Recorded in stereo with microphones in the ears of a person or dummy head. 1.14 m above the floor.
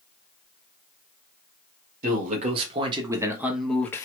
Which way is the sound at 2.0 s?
40° right (ahead or behind).